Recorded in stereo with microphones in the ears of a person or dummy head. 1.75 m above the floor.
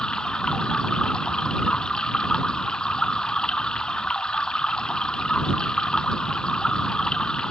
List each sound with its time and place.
0.0 s running water: centre (ahead or behind)